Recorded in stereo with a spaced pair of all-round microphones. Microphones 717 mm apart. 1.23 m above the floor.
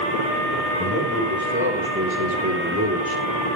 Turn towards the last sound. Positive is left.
turn(degrees=-20)  # may be behind; listen again after turning